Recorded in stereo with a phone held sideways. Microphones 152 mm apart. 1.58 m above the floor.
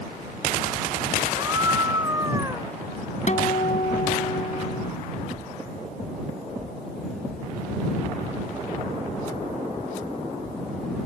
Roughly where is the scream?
Right.